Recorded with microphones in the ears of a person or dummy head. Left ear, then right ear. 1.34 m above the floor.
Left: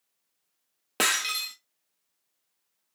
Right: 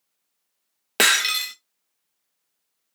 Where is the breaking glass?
20° right (ahead or behind), 0.6 m.